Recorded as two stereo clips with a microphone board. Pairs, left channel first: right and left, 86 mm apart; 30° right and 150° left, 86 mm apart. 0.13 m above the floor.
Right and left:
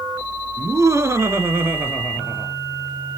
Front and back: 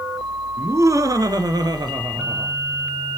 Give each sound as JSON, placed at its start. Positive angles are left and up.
{"t": 0.6, "sound": "laughter", "azimuth_deg": 115, "distance_m": 1.8}